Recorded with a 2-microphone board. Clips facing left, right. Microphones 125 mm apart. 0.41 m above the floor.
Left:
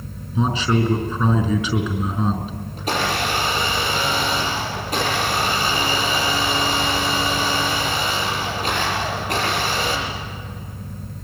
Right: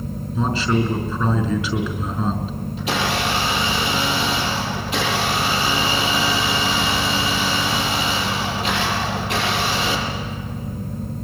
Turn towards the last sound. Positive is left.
turn(degrees=40)  # may be behind; listen again after turning